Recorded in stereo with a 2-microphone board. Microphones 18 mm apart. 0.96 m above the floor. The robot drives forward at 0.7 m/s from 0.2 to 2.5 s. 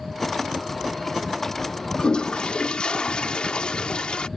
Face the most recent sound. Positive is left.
turn(degrees=75)  # may be behind; listen again after turning